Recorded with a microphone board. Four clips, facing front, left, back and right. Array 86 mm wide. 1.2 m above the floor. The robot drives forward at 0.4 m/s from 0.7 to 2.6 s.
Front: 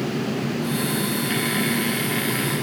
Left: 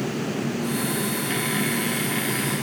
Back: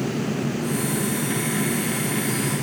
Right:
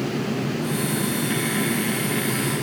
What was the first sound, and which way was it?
Only background noise.